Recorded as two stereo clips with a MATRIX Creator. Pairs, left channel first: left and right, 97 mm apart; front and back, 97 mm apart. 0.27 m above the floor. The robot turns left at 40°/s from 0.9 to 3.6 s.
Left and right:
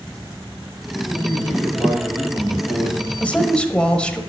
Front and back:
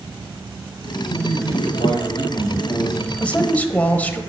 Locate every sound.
1.1 s a man speaking: 15° left, 5 m; by 3.1 s 70° right, 5 m
3.2 s a man speaking: 50° left, 0.9 m; by 4.2 s 35° left, 0.9 m